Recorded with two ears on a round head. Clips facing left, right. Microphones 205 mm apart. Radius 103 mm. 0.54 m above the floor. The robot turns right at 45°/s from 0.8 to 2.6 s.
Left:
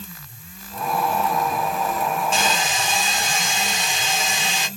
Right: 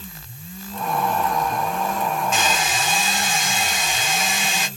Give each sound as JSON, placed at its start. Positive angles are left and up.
{"t": 2.3, "sound": "a hair dryer", "side_deg": 30, "distance_m": 1.9}